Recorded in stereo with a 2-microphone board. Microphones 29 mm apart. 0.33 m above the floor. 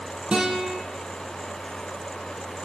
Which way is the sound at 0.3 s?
30° right (ahead or behind).